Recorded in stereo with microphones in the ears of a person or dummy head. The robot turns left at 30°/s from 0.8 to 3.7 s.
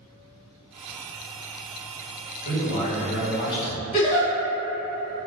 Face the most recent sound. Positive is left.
turn(degrees=40)  # may be behind; listen again after turning